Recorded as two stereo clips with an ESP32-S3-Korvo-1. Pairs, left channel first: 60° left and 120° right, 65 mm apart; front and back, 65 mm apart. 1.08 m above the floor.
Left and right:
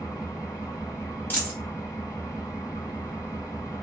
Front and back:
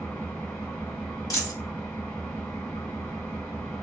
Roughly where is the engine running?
Left.